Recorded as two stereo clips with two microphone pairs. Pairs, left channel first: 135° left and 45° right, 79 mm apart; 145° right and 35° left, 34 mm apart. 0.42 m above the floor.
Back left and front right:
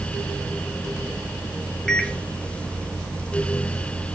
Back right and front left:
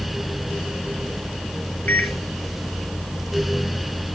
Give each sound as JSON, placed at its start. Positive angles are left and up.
{"t": 1.9, "sound": "a microwave", "azimuth_deg": -145, "distance_m": 1.4}